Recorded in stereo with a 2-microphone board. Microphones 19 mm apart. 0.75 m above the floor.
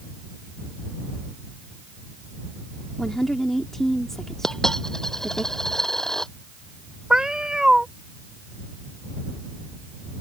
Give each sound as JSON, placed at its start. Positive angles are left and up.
{"t": 3.0, "sound": "a woman speaking", "side_deg": 20}
{"t": 4.4, "sound": "a dropped coin", "side_deg": 30}
{"t": 7.1, "sound": "a cat meowing", "side_deg": -40}